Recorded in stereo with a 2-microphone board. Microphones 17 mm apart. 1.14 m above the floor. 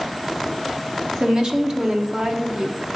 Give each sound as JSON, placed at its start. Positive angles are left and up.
{"t": 1.2, "sound": "a woman speaking", "side_deg": -45, "distance_m": 1.3}